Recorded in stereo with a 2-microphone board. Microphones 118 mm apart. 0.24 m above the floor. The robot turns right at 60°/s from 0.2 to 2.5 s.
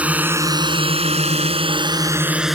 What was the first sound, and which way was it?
A drone, 10° right (ahead or behind).